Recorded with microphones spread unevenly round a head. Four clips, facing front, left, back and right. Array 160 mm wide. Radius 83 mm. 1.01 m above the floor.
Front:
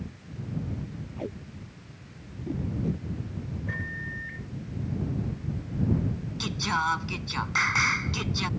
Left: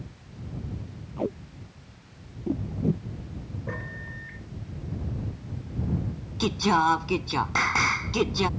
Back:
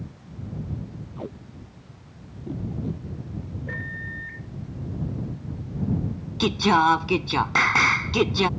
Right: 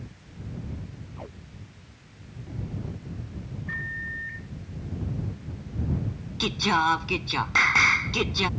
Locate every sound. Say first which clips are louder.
1.2 s tape being pulled: left 16 dB, even; 95° left
3.7 s a microwave: right 2 dB, back 1 dB; 110° left
6.4 s singing: left 2 dB, back 10 dB; 165° left